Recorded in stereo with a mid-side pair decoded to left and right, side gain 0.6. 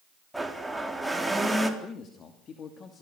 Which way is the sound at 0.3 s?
5° right.